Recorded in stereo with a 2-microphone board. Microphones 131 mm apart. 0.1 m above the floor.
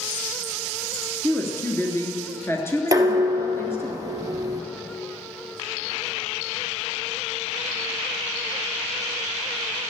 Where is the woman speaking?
20° left (ahead or behind), 1.5 m.